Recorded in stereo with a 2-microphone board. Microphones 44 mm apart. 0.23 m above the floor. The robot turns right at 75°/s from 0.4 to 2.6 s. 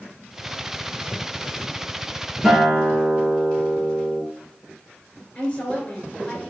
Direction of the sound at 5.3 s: 25° left (ahead or behind).